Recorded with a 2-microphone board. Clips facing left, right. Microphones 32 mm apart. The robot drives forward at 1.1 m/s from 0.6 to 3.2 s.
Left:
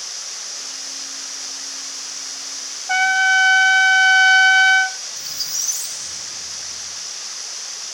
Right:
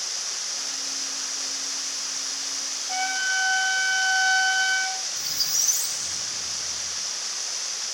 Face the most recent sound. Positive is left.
turn(degrees=0)  # may be behind; listen again after turning